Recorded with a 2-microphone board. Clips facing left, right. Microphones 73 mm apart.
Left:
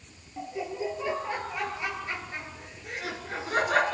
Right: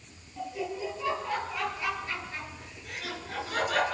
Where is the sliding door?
I don't hear a sliding door.